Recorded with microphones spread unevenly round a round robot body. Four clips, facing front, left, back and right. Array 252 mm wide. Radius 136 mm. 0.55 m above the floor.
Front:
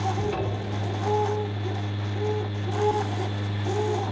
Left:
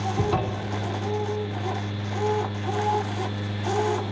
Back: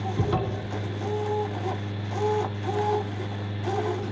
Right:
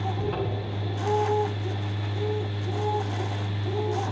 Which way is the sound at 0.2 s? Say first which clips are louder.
Left 4 dB, even; 140° left.